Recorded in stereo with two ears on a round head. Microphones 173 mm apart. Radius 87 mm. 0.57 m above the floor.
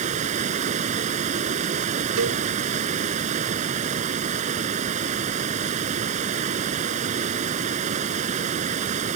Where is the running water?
40° right (ahead or behind).